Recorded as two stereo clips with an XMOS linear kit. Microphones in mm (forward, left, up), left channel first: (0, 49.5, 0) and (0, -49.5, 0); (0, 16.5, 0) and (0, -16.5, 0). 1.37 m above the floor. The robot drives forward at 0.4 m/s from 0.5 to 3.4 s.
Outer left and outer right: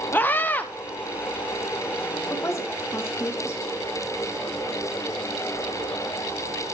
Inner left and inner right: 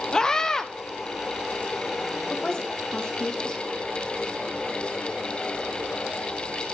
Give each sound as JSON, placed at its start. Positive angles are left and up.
{"t": 0.1, "sound": "a scream", "side_deg": 15, "distance_m": 0.8}
{"t": 2.3, "sound": "a woman speaking", "side_deg": 25, "distance_m": 2.0}